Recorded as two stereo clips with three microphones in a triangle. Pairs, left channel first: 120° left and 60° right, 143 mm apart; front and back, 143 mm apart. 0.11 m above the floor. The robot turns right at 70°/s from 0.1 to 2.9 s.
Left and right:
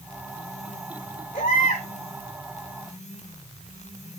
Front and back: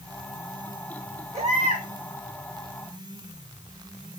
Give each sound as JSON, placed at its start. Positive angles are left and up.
{"t": 1.3, "sound": "a baby crying", "azimuth_deg": 135, "distance_m": 4.5}